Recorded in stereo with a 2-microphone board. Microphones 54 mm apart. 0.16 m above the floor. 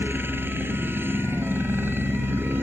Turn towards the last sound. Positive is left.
turn(degrees=-45)  # may be behind; listen again after turning